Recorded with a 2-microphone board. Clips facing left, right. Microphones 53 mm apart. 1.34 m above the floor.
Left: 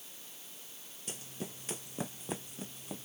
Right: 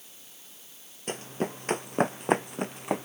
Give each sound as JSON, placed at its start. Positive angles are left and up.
{"t": 1.1, "sound": "running footsteps", "side_deg": -50}